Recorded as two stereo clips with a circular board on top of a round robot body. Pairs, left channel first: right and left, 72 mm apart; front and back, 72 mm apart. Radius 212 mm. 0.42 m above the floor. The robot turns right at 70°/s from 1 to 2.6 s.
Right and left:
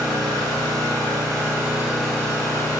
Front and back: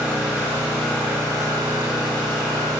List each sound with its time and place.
0.0 s an engine running: 110° left, 3.5 m; by 2.8 s 140° right, 3.5 m